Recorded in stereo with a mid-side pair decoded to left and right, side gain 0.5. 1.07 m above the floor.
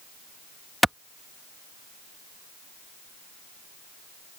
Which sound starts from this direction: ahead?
A clap, at 0.8 s.